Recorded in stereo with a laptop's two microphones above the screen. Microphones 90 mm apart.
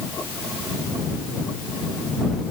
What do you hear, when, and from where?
Only background noise.